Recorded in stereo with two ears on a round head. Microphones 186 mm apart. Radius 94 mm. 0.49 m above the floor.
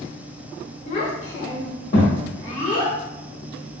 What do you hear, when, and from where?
0.9 s a child speaking: 35° left (ahead or behind), 0.9 m; by 3.0 s 30° left (ahead or behind), 1.5 m